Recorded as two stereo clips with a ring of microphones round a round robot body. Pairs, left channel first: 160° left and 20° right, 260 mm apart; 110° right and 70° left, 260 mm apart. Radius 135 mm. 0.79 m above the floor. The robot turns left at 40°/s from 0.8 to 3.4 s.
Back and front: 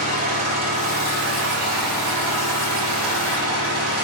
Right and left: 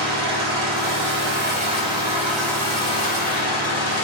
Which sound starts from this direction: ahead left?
An engine running, at 0.0 s.